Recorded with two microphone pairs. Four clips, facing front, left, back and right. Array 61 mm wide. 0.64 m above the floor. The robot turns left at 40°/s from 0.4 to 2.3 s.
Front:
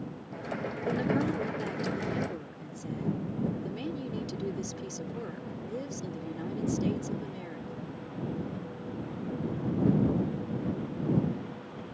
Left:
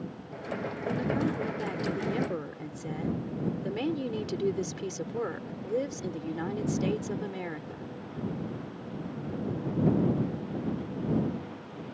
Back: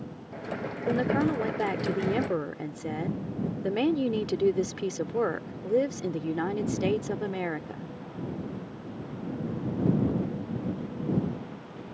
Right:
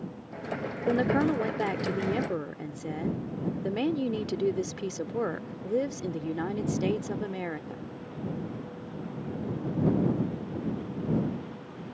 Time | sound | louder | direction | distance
0.9 | a woman speaking | right 5 dB, back 4 dB | 115° right | ?